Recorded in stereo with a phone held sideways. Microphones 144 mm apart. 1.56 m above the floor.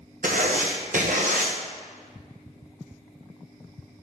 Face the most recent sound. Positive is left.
turn(degrees=-65)  # may be behind; listen again after turning